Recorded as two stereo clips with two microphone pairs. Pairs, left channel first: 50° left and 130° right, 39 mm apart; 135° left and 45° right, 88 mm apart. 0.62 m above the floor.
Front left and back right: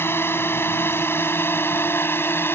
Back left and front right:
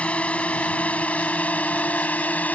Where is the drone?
60° left.